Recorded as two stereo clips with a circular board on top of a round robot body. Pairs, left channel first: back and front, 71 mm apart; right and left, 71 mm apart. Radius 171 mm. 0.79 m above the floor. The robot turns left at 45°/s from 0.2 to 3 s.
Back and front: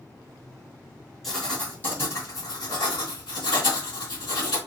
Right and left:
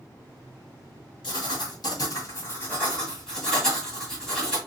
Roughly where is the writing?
Right.